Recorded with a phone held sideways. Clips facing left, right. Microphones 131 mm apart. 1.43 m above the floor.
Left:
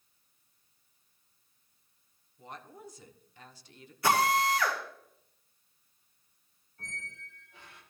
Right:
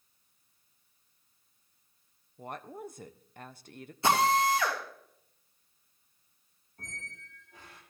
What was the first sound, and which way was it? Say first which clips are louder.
A woman speaking: right 6 dB; 55° right (ahead or behind).